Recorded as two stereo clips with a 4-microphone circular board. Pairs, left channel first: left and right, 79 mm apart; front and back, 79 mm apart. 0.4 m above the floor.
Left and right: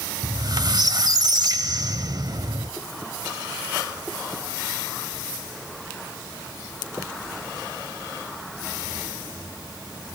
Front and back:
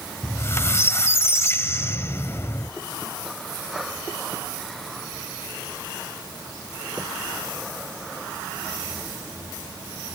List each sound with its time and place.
0.2 s a squeak: 55° right, 0.6 m